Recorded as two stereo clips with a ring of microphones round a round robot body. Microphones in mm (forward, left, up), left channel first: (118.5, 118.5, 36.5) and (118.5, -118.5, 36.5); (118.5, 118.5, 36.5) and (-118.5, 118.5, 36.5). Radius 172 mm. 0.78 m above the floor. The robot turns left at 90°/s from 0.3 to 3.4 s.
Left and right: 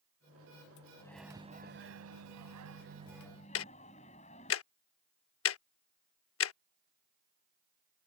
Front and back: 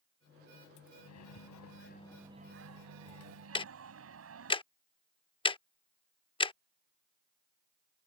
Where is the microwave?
20° left; by 4.5 s 160° left.